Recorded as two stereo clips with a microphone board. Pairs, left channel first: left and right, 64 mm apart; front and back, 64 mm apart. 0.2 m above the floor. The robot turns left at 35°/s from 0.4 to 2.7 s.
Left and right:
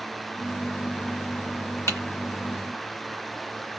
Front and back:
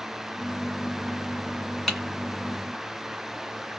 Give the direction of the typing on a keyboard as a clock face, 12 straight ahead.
9 o'clock.